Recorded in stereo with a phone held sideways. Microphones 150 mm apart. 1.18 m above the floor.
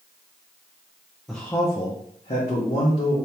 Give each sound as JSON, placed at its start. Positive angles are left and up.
{"t": 1.3, "sound": "a man speaking", "side_deg": 0, "distance_m": 0.6}